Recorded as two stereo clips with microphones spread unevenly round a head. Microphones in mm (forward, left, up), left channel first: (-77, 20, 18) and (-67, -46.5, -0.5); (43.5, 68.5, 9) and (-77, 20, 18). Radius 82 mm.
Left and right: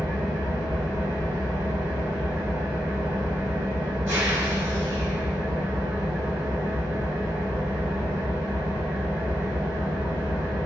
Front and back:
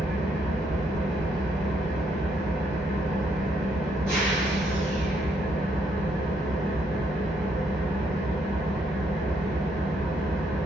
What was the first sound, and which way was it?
An engine running, 60° right.